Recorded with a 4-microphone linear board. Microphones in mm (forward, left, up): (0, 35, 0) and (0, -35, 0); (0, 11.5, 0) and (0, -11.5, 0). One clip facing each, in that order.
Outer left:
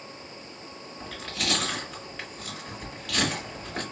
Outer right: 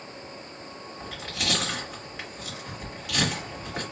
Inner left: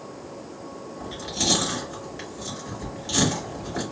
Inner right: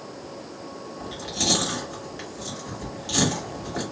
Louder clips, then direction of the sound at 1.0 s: Even, even; 10° right (ahead or behind).